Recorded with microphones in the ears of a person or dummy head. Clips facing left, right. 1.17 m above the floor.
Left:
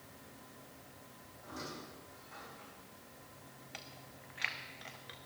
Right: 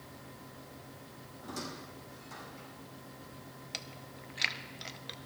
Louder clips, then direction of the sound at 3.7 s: Right 4 dB; 50° right (ahead or behind).